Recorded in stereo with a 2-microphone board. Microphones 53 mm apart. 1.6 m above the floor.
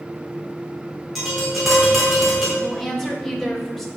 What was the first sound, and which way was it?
Tapping, 5° right (ahead or behind).